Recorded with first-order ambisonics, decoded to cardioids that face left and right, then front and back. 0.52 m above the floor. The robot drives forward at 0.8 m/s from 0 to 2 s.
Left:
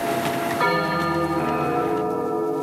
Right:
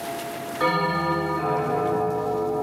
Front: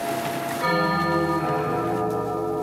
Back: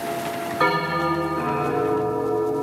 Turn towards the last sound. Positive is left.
turn(degrees=155)